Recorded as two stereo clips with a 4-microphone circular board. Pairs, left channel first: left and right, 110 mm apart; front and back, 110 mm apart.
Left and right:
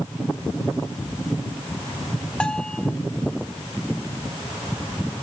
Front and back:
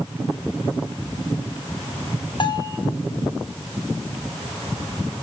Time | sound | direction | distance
2.4 | a bell | 15° left | 1.1 m